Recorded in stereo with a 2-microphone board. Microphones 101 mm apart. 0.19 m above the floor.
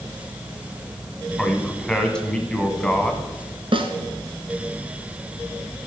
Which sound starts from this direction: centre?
A man speaking, at 1.4 s.